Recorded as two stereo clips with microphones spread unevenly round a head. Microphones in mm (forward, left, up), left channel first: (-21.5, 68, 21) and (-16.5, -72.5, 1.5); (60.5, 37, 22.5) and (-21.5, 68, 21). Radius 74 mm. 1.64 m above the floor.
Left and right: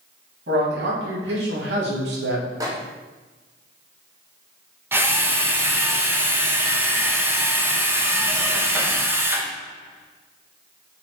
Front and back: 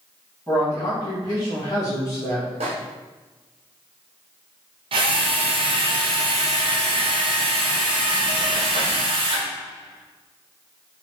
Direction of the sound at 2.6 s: 155° right.